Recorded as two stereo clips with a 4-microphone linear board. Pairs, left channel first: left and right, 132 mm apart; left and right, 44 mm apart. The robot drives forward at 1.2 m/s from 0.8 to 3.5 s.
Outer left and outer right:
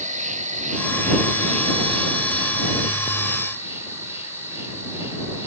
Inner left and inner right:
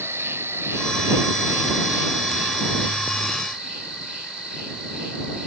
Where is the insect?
75° right (ahead or behind), 1.1 m; by 5.5 s 20° right (ahead or behind), 3 m.